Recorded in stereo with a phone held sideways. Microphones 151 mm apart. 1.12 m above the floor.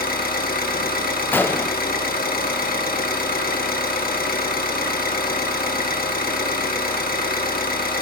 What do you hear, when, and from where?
0.0 s an engine running: 80° left, 1.4 m
1.3 s a gunshot: 15° left (ahead or behind), 0.6 m